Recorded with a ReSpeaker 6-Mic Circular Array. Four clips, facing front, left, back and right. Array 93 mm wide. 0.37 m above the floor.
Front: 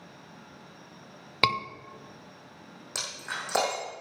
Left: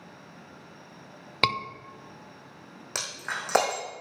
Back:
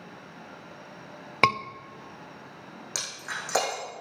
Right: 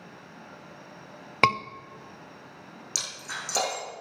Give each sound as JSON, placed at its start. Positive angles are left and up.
{"t": 1.4, "sound": "a scream", "azimuth_deg": -130, "distance_m": 0.8}
{"t": 3.0, "sound": "breaking glass", "azimuth_deg": 95, "distance_m": 5.0}